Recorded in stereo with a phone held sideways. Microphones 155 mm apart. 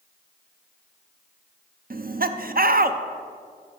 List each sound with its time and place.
1.9 s laughter: 70° right (ahead or behind), 0.5 m